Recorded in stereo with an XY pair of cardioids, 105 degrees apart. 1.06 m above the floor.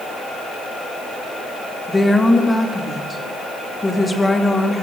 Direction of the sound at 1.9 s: 15° left.